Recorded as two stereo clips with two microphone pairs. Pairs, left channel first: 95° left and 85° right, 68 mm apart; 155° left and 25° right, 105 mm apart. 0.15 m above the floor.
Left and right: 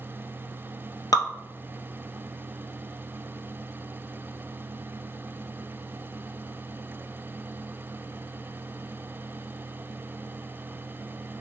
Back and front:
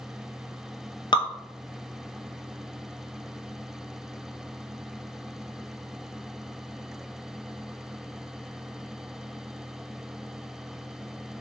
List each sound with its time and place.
1.1 s dripping: 115° left, 0.6 m